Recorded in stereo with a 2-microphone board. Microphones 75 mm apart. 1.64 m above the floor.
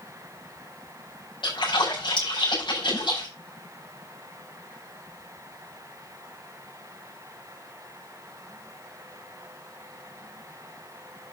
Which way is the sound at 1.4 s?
85° left.